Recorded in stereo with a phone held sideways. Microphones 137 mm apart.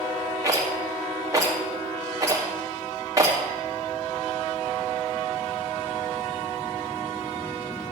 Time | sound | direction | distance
0.4 | a rattle | 25° right (ahead or behind) | 1.8 m